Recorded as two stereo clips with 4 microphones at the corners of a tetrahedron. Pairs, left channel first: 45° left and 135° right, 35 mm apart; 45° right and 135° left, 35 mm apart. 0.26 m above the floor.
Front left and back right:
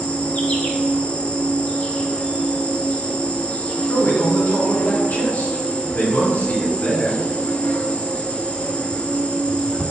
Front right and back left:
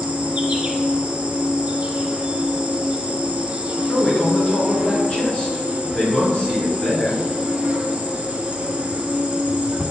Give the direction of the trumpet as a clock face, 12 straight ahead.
No trumpet in this recording.